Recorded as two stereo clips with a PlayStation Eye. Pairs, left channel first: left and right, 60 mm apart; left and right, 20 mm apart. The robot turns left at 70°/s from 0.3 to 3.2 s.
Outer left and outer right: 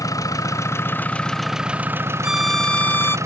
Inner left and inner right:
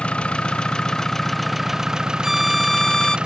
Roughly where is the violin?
Behind.